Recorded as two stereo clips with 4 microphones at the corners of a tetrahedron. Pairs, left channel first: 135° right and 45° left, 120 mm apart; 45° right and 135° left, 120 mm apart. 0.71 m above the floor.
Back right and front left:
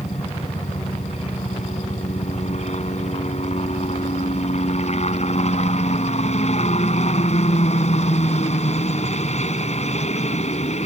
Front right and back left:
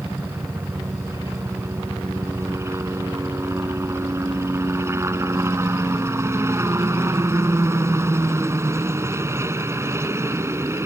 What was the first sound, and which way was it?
A helicopter, 155° right.